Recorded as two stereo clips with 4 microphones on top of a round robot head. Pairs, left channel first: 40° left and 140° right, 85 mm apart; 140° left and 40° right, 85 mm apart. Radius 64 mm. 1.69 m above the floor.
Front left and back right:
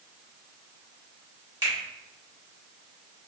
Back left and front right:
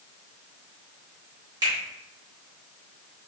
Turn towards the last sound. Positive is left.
turn(degrees=-85)